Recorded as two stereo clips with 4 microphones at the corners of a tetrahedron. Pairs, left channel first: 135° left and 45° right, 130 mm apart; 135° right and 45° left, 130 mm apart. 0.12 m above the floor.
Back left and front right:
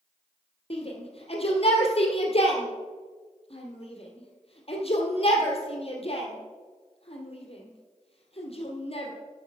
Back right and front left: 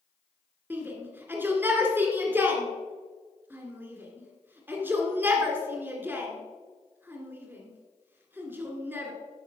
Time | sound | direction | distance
0.7 | a shout | 115° left | 2 m